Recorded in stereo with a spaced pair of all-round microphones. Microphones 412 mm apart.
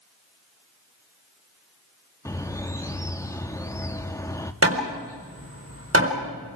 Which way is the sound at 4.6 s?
35° right (ahead or behind).